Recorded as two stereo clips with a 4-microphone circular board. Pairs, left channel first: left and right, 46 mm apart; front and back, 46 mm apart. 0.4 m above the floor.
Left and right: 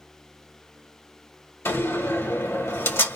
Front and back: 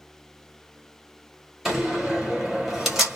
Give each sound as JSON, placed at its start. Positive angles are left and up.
{"t": 1.6, "sound": "a door slam", "azimuth_deg": 95, "distance_m": 1.8}